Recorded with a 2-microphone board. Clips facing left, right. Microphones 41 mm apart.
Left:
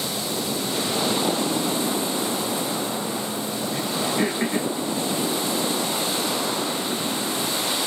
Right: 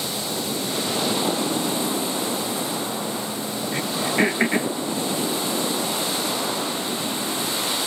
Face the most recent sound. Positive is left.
turn(degrees=-60)  # may be behind; listen again after turning